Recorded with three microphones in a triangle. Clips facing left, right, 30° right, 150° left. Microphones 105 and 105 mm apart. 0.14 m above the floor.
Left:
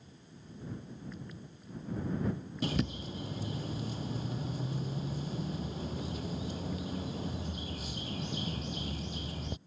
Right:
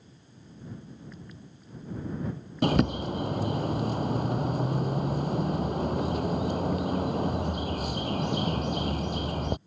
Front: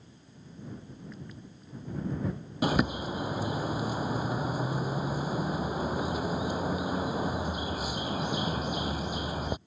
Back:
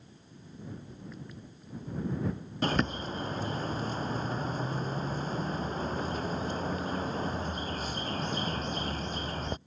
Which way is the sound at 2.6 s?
110° right.